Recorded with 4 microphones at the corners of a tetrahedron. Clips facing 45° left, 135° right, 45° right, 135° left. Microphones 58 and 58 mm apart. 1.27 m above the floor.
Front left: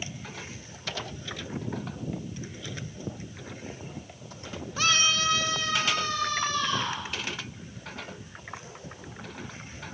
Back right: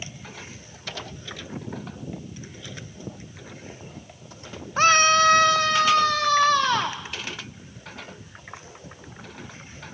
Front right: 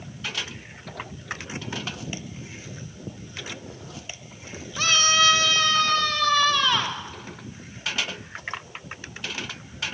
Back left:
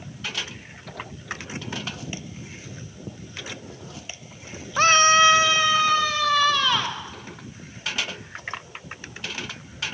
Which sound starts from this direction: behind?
A scream, at 4.8 s.